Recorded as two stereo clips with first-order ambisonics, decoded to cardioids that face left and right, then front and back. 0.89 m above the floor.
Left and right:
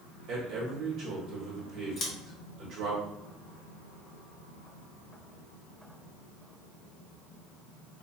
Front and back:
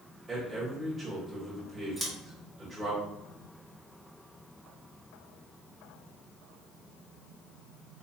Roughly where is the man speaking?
Right.